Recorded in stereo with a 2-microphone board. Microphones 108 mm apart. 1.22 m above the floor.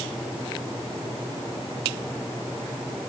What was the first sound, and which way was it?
Only background noise.